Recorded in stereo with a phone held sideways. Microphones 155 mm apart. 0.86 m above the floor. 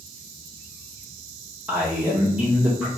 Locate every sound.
1.7 s a man speaking: 10° right (ahead or behind), 0.8 m